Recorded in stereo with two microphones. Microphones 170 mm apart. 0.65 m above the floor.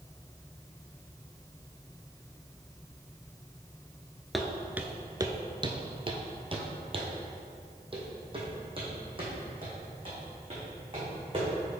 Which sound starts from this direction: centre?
Footsteps, at 4.3 s.